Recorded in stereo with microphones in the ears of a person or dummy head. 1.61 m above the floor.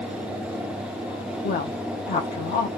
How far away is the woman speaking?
About 0.7 m.